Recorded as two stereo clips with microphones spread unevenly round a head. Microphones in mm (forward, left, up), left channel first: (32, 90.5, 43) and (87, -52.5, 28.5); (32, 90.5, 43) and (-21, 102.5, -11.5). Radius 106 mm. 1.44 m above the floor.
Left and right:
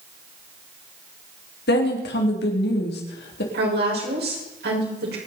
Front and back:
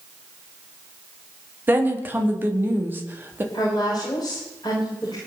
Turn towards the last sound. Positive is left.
turn(degrees=-80)